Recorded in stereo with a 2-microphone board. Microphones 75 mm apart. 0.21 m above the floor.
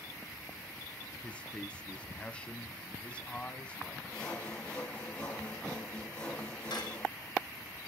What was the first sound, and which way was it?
A man speaking, 15° left (ahead or behind).